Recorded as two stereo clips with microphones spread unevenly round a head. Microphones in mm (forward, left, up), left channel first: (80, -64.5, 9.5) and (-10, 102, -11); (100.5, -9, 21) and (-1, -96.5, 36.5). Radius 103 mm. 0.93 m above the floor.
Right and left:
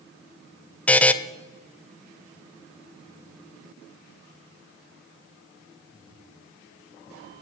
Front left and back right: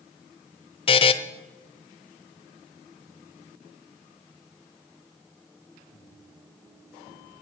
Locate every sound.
0.9 s a buzzer: 10° left, 0.7 m